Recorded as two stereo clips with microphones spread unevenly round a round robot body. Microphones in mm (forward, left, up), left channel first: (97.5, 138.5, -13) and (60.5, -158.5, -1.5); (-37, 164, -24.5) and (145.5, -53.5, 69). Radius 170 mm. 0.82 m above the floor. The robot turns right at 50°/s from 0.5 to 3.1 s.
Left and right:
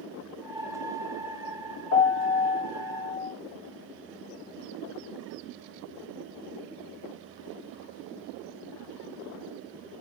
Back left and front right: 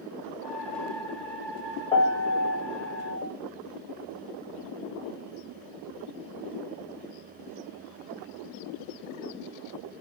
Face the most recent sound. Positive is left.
turn(degrees=135)